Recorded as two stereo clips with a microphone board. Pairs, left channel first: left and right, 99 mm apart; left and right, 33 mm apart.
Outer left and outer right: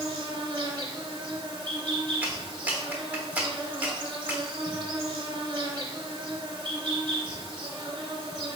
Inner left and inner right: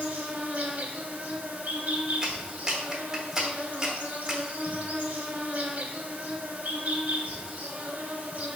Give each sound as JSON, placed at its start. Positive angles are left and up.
{"t": 0.0, "sound": "an insect", "side_deg": -55, "distance_m": 0.9}
{"t": 2.2, "sound": "a clap", "side_deg": -15, "distance_m": 1.0}